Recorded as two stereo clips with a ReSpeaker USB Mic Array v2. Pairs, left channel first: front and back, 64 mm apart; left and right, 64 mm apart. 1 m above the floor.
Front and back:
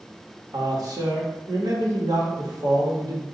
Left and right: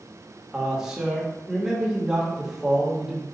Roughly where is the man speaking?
Behind.